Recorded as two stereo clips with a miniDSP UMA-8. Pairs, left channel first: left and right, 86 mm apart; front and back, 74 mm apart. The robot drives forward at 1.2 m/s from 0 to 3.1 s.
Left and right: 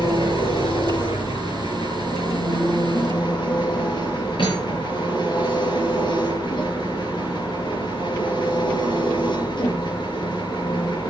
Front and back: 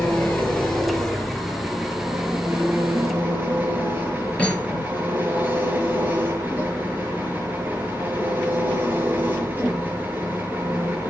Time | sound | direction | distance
0.0 | an engine running | 65° left | 4.5 m
4.4 | cutlery clinking | 75° left | 5.5 m